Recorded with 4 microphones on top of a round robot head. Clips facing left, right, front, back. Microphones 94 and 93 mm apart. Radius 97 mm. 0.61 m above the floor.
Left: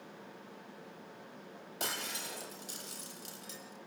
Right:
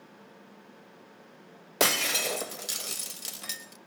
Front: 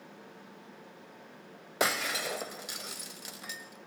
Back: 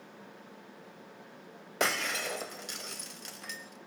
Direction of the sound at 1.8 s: 85° right.